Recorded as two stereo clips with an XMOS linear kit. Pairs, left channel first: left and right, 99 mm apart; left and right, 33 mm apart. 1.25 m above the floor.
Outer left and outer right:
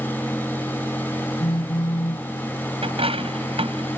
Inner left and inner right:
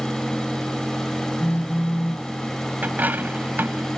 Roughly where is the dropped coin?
Right.